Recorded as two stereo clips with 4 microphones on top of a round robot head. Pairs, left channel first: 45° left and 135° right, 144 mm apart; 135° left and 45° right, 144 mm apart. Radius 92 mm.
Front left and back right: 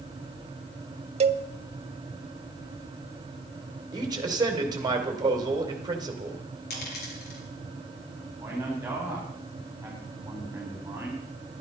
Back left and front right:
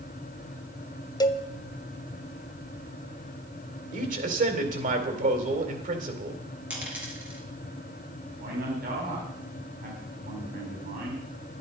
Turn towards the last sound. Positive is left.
turn(degrees=-60)